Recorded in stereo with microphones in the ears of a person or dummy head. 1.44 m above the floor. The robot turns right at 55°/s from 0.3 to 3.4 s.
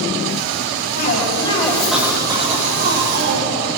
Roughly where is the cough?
Behind left.